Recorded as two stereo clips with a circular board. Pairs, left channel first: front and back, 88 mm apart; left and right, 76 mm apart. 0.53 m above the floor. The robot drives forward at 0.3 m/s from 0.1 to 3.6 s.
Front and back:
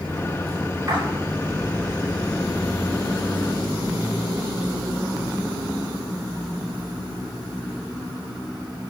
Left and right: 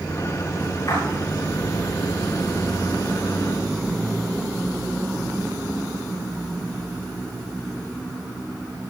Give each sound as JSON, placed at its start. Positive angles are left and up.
{"t": 0.9, "sound": "a splash", "azimuth_deg": 130, "distance_m": 7.5}